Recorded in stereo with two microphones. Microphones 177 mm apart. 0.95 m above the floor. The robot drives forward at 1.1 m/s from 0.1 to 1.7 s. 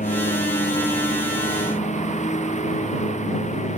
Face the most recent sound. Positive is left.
turn(degrees=40)  # may be behind; listen again after turning